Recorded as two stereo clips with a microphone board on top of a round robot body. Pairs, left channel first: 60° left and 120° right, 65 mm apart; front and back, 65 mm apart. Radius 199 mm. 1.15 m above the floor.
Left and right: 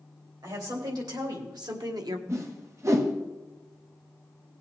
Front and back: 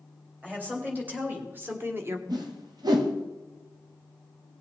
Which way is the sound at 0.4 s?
115° right.